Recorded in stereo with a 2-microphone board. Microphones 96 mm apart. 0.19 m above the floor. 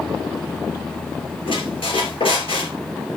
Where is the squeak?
65° left (ahead or behind), 3 m.